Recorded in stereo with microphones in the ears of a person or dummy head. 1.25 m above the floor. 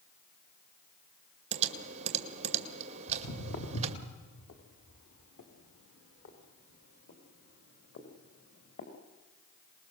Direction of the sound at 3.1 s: 75° left (ahead or behind).